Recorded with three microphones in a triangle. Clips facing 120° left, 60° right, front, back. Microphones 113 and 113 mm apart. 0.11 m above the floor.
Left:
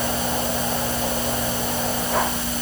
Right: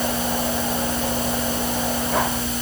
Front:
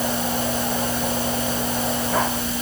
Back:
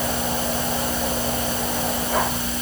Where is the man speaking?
I don't hear a man speaking.